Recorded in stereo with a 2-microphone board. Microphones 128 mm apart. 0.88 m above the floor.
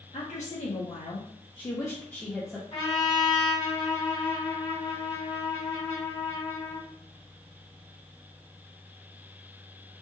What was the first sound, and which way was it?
A woman speaking, 75° left (ahead or behind).